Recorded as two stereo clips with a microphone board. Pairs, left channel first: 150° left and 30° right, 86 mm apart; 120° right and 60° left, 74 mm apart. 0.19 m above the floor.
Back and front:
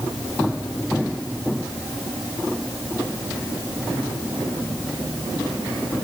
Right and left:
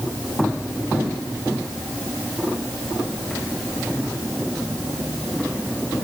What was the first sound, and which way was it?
Only background noise.